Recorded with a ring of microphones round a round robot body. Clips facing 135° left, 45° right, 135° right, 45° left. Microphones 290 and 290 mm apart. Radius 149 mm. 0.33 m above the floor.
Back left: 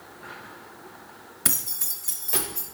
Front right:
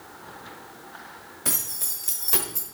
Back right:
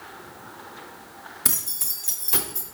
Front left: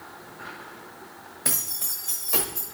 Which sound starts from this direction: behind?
Keys jangling, at 1.4 s.